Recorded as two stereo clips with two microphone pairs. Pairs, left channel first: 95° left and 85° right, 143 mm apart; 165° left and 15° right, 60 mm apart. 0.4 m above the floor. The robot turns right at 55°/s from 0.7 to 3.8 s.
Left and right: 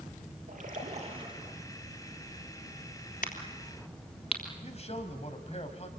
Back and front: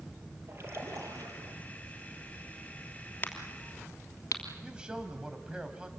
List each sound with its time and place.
0.5 s a splash: 60° right, 5 m; by 1.6 s 15° right, 5 m
3.2 s a crack: 110° left, 3 m; by 4.4 s 140° left, 3 m
4.6 s a man speaking: 60° left, 2.5 m